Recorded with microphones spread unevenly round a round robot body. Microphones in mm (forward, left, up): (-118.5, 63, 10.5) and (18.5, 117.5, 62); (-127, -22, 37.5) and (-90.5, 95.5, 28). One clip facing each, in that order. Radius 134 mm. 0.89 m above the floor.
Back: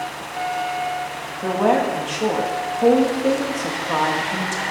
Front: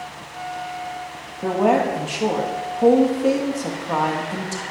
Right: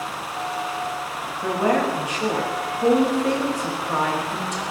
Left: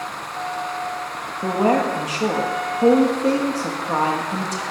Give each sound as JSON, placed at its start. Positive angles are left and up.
{"t": 1.4, "sound": "a woman speaking", "azimuth_deg": 115, "distance_m": 1.5}